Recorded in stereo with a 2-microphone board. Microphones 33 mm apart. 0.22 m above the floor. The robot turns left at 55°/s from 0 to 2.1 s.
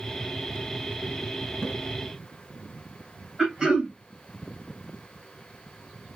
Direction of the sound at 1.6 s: 15° right (ahead or behind).